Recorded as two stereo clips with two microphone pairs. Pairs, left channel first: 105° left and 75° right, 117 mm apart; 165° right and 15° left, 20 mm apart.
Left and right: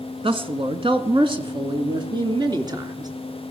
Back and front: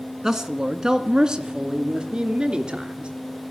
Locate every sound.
0.2 s a man speaking: 50° right, 2.5 m; by 3.1 s 20° right, 4 m